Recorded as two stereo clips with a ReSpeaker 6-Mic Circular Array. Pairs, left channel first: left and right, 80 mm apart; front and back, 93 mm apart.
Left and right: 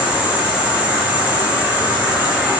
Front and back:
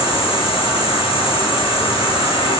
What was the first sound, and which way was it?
An insect, 15° right.